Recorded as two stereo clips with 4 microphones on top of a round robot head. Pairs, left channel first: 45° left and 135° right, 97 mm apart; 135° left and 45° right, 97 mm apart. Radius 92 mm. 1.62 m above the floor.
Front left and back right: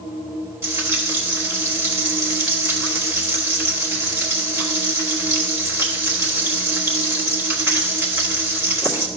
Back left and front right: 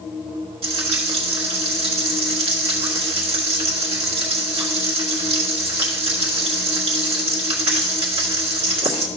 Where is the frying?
75° right, 1.3 m.